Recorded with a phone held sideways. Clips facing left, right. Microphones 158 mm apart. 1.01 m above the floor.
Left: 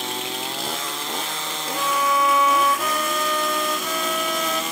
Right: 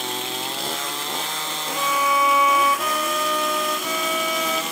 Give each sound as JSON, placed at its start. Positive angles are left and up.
{"t": 1.7, "sound": "a violin", "side_deg": 0}